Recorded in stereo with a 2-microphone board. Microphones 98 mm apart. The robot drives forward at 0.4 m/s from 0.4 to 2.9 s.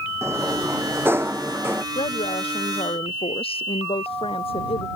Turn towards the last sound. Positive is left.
turn(degrees=80)